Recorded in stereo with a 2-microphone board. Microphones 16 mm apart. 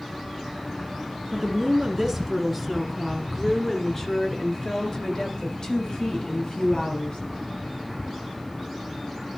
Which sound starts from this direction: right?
A woman speaking, at 1.3 s.